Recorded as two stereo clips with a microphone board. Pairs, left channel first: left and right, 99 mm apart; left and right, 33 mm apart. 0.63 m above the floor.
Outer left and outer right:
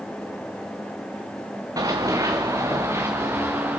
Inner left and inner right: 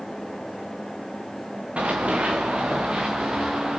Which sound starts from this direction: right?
Running footsteps, at 1.8 s.